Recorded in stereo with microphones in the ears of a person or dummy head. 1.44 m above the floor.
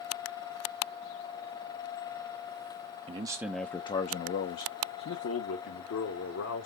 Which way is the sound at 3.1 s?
30° right (ahead or behind).